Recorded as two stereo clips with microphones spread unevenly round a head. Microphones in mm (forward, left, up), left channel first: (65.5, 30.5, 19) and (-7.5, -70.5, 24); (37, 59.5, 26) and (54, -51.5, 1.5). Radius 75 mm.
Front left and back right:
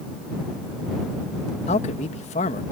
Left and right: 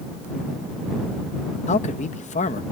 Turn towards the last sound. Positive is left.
turn(degrees=80)